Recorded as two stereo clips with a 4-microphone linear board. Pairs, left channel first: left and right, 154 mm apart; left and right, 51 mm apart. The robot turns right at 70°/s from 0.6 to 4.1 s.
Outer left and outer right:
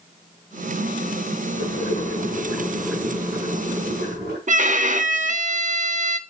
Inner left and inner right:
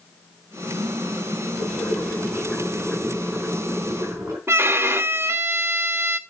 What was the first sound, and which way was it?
Boiling, 85° left.